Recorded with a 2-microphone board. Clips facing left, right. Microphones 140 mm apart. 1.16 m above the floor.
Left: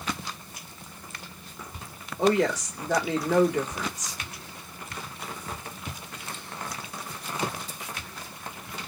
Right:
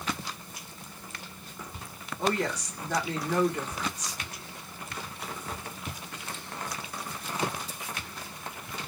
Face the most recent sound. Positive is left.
turn(degrees=80)